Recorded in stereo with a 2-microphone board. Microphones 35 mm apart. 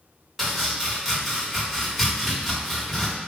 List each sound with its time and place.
0.4 s chopping: centre (ahead or behind), 1.2 m